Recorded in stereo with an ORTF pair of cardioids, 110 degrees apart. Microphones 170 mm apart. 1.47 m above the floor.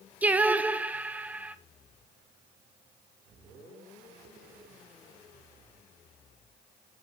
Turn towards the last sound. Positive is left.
turn(degrees=-10)